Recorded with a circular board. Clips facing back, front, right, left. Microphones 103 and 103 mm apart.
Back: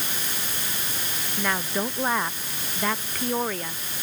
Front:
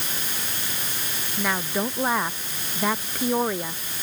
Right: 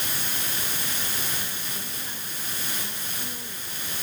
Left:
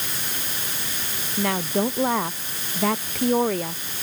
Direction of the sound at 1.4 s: 90° left.